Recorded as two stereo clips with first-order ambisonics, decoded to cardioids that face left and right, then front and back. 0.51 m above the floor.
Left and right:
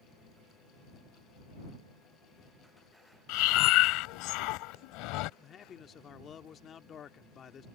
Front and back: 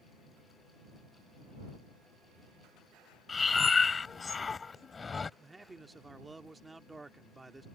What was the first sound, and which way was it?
Breathing, 75° left.